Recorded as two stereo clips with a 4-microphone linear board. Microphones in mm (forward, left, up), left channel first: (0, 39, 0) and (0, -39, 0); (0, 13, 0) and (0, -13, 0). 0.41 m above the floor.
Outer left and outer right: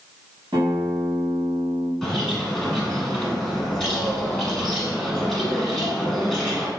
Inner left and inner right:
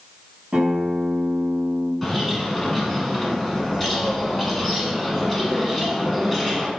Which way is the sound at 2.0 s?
Centre (ahead or behind).